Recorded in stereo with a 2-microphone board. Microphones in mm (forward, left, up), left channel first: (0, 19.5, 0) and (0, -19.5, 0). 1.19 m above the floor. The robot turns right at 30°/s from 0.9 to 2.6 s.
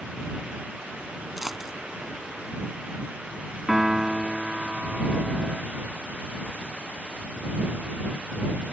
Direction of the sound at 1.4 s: Centre (ahead or behind).